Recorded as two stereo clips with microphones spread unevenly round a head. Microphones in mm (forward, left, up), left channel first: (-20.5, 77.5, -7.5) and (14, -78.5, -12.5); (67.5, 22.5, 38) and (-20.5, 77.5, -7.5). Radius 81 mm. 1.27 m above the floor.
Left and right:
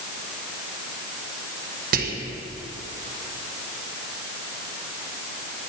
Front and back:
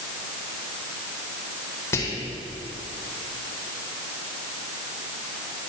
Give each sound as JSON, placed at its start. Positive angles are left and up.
{"t": 1.9, "sound": "whispering", "azimuth_deg": -110, "distance_m": 1.2}